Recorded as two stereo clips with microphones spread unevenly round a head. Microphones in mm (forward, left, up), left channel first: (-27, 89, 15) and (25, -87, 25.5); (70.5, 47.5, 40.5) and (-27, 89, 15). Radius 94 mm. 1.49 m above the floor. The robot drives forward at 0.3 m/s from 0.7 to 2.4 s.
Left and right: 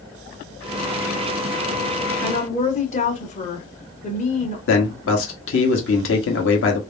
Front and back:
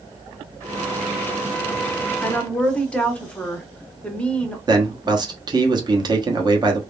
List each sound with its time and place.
2.2 s a woman speaking: 50° left, 1.1 m
4.7 s a man speaking: 110° left, 1.1 m